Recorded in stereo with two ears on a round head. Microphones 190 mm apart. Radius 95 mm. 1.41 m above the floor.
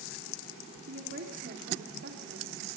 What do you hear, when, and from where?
0.9 s a woman speaking: 50° right (ahead or behind), 3.5 m